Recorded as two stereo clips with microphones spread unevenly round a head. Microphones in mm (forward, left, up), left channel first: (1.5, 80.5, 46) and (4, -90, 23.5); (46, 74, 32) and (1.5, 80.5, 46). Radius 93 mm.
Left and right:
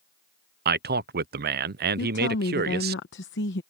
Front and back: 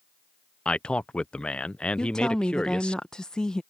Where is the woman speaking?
70° left.